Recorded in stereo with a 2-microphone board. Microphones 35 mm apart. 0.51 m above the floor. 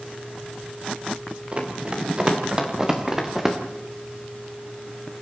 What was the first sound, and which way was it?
Running footsteps, 30° right (ahead or behind).